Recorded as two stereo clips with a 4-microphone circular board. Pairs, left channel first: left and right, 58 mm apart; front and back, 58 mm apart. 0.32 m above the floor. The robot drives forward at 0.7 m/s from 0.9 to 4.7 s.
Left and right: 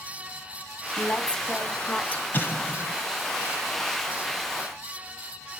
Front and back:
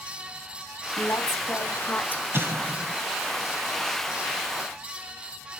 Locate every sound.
1.0 s a woman speaking: 20° left, 1.9 m; by 2.2 s 45° left, 1.2 m
2.3 s an explosion: 140° left, 1.4 m; by 2.9 s 150° left, 1.7 m